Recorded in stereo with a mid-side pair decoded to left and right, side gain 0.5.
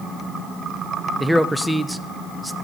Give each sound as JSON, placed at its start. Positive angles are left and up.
{"t": 1.2, "sound": "a man speaking", "azimuth_deg": -5, "distance_m": 0.6}